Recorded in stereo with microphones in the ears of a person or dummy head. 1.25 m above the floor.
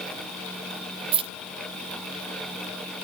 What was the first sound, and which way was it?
Keys jangling, 30° right (ahead or behind).